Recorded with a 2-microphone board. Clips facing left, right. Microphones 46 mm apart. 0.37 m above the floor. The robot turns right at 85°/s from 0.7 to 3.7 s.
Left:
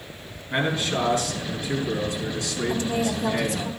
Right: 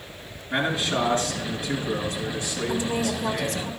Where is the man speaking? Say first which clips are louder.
Even; straight behind, 4.5 m; by 3.7 s 75° left, 4.5 m.